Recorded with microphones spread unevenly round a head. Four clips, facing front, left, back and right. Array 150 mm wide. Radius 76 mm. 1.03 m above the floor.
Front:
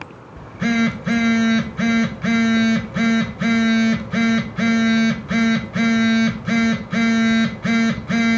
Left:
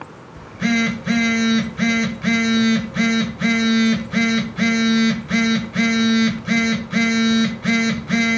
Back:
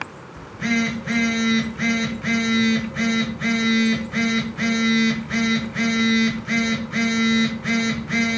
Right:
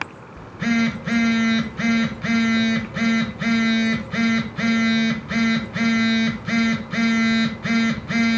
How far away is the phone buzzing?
About 0.9 m.